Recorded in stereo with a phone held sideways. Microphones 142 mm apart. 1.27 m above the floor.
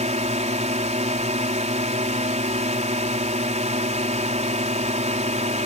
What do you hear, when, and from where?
0.0 s a drone: 50° right (ahead or behind)